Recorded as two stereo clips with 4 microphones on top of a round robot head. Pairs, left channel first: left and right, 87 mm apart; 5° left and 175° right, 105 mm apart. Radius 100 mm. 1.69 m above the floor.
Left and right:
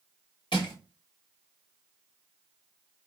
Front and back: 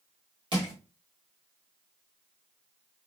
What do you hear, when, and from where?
0.5 s crushing: 145° left, 1.6 m